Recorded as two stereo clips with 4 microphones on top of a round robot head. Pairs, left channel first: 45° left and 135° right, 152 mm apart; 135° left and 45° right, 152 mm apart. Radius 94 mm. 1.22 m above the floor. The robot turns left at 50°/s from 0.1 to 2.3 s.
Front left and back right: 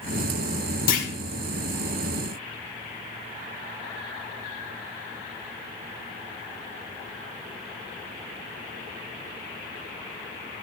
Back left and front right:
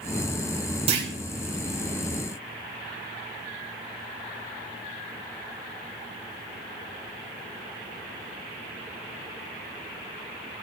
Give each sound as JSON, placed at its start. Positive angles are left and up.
{"t": 0.9, "sound": "a clunk", "azimuth_deg": 10, "distance_m": 2.0}